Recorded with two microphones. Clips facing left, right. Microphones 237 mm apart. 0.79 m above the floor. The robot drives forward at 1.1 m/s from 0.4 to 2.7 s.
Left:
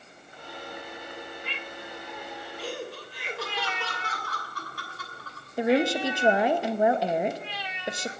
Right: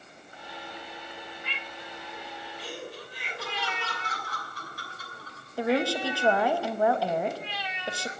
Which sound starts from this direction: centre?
A woman speaking, at 5.6 s.